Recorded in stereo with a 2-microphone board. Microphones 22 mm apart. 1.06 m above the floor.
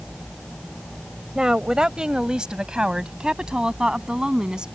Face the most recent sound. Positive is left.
turn(degrees=-40)  # may be behind; listen again after turning